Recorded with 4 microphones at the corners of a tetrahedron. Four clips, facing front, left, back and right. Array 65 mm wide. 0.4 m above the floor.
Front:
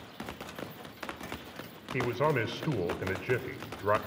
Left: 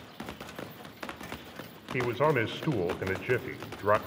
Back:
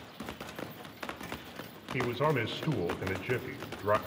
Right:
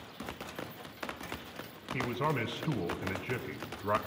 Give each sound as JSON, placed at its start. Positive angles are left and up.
{"t": 1.9, "sound": "a man speaking", "azimuth_deg": 75, "distance_m": 1.5}